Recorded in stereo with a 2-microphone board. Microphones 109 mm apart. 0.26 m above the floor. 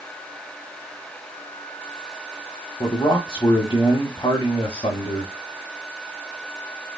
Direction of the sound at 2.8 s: 45° left (ahead or behind).